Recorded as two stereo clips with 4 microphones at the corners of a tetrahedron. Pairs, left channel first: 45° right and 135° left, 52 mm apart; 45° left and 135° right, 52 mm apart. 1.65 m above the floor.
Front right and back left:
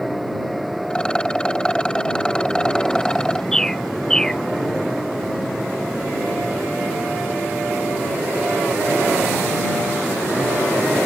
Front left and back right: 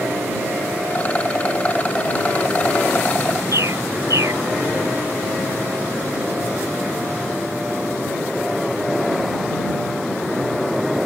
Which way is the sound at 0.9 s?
15° left.